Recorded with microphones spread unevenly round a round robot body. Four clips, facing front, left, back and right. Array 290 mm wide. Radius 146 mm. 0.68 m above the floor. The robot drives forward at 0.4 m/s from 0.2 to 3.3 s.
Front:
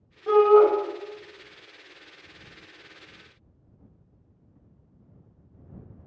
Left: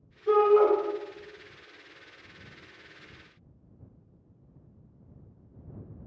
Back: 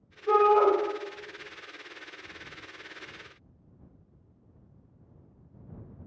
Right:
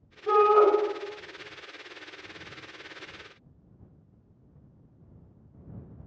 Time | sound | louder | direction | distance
0.3 | a shout | even, front 5 dB | 30° right | 1.5 m